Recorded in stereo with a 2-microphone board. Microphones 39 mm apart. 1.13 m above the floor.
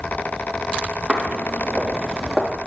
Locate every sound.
1.1 s footsteps: 10° left (ahead or behind), 3.5 m; by 2.5 s centre (ahead or behind), 3.5 m